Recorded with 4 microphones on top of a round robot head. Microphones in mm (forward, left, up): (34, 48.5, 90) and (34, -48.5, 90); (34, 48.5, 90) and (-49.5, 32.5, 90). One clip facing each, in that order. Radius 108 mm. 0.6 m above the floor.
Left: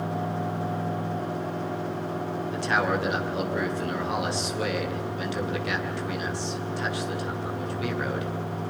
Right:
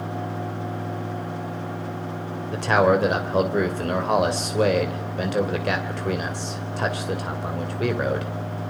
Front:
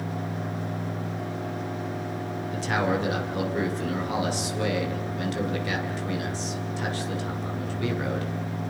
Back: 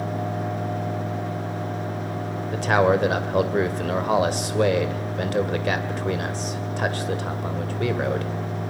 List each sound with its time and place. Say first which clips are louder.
2.5 s a man speaking: right 8 dB, back 7 dB; 130° right, 2.5 m